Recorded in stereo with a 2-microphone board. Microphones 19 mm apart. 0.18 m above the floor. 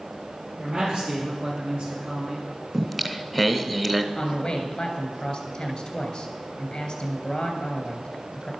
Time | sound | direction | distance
0.6 | a man speaking | 75° right (ahead or behind) | 5.5 m
2.7 | singing | 5° right (ahead or behind) | 0.8 m
4.2 | a man speaking | 30° left (ahead or behind) | 2.5 m